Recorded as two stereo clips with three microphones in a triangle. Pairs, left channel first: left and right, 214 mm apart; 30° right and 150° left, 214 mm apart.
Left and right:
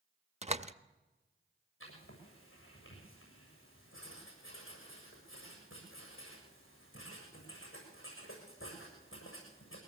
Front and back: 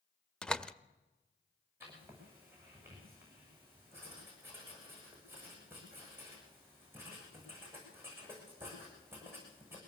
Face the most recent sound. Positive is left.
turn(degrees=70)